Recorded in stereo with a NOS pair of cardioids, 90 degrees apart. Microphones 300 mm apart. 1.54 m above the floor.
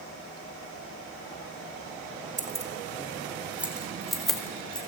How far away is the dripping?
I don't hear dripping.